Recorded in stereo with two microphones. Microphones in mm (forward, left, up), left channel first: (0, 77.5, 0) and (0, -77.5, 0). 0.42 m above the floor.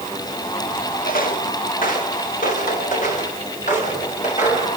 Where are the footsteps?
65° left (ahead or behind), 4 m; by 4.7 s 50° left (ahead or behind), 6 m.